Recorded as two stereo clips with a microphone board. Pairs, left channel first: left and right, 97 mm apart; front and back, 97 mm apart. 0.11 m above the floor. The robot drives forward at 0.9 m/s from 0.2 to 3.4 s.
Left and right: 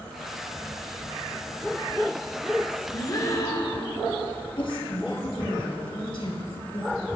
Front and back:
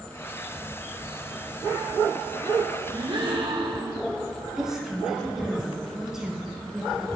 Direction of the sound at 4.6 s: 95° left.